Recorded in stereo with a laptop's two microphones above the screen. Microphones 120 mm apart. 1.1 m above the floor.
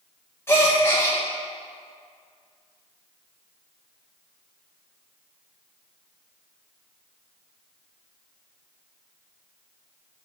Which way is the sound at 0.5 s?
20° left (ahead or behind).